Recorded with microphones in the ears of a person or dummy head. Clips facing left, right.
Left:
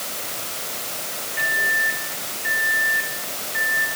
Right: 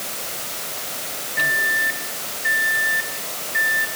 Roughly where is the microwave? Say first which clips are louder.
Right 1 dB; right.